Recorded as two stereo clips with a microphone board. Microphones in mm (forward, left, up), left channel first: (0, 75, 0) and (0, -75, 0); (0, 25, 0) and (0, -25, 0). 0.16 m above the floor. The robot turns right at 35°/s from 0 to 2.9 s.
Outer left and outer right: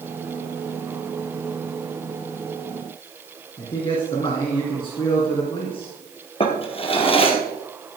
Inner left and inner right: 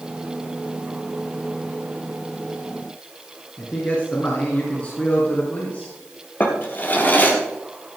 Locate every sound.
3.6 s a man speaking: 30° left (ahead or behind), 2.5 m
6.4 s a drawer: 35° left (ahead or behind), 2 m